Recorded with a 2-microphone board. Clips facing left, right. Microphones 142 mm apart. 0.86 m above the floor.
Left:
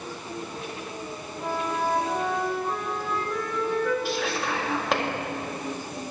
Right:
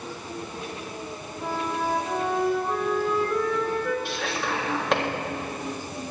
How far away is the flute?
About 1.7 m.